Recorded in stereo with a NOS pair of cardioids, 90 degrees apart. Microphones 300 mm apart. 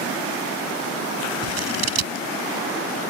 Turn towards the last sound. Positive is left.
turn(degrees=-60)